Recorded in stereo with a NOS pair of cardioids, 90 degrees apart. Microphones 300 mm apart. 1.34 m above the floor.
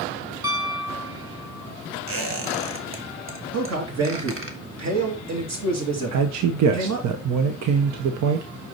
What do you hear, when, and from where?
0.4 s a piano: 15° right, 1.1 m
2.1 s a squeak: 45° right, 1.4 m
3.5 s a man speaking: 60° right, 2.5 m
6.1 s a man speaking: 65° right, 0.9 m